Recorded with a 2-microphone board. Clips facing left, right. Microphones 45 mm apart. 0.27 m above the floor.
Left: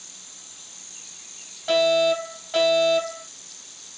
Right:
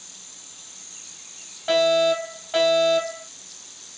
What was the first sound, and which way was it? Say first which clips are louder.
A fire alarm: even; 15° right (ahead or behind).